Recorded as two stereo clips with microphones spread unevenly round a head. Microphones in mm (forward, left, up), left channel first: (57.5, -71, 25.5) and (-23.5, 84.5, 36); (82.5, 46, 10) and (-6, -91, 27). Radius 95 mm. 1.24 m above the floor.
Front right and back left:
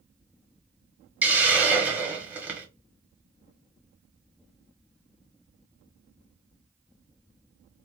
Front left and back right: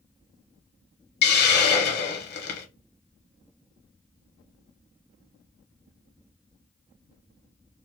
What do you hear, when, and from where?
1.2 s a hiss: 40° left, 1.2 m